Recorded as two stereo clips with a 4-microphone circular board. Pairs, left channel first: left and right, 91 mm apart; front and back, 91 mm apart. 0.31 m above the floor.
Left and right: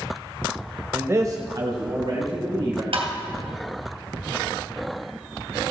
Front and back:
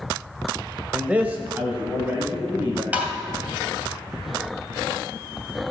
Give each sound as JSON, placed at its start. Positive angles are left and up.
{"t": 0.9, "sound": "a man speaking", "azimuth_deg": -115, "distance_m": 1.0}
{"t": 2.9, "sound": "tapping", "azimuth_deg": -105, "distance_m": 2.5}